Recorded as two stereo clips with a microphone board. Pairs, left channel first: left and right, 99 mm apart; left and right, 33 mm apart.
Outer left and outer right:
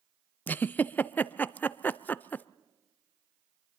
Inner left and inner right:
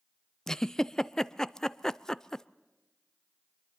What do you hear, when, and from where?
0.5 s a giggle: 20° left (ahead or behind), 0.5 m